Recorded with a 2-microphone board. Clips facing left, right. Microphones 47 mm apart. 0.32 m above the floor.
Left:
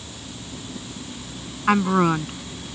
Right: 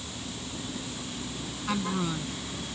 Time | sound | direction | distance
1.7 | a woman speaking | 55° left (ahead or behind) | ?